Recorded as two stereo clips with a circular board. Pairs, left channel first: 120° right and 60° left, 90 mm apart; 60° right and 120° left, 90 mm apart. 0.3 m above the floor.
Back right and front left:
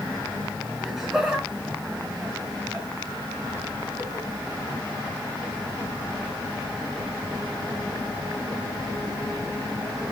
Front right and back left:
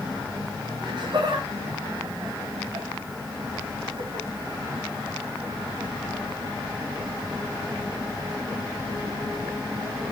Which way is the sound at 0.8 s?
150° left.